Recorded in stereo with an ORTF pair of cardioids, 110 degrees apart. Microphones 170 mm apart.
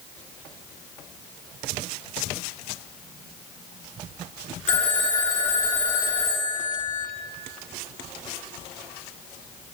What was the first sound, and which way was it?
A phone ringing, 45° left.